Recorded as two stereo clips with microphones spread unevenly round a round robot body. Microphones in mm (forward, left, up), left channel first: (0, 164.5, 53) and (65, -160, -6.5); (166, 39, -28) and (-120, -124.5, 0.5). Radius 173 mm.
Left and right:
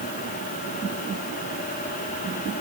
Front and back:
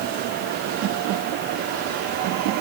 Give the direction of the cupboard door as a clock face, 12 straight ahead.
No cupboard door in this recording.